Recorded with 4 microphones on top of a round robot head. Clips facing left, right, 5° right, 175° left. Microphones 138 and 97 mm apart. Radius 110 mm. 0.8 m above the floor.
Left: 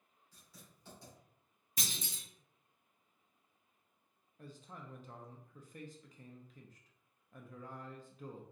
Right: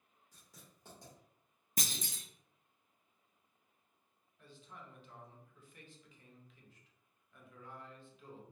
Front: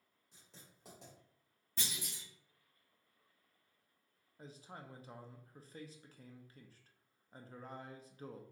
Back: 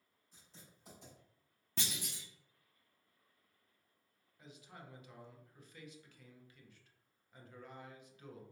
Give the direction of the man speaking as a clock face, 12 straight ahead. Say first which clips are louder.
Left 3 dB, front 3 dB; 10 o'clock.